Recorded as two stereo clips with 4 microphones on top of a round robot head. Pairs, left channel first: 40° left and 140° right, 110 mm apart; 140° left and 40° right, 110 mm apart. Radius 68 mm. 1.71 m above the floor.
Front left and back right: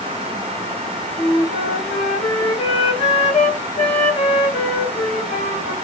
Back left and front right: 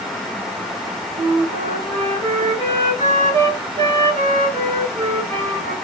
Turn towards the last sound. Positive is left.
turn(degrees=5)